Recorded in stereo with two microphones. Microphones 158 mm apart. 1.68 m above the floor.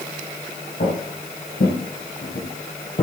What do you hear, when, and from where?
0.8 s footsteps: 70° left (ahead or behind), 4.5 m; by 3.0 s 35° left (ahead or behind), 2.5 m